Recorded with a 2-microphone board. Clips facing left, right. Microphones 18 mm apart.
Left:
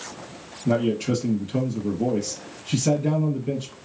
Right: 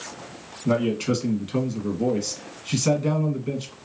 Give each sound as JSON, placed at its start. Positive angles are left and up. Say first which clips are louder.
{"t": 0.7, "sound": "a man speaking", "louder": "even", "side_deg": -35, "distance_m": 1.5}